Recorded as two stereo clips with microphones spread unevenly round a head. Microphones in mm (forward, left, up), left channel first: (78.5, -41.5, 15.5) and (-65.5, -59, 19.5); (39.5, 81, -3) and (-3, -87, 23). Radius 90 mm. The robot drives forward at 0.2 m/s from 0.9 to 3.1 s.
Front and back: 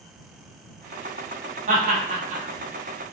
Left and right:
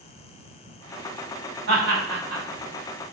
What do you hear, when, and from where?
1.7 s laughter: 140° right, 1.0 m; by 2.4 s 145° right, 1.1 m